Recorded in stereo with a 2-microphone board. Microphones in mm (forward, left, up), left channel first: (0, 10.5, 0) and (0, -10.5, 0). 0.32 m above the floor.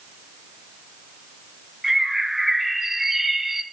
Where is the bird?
15° right (ahead or behind), 2.5 m.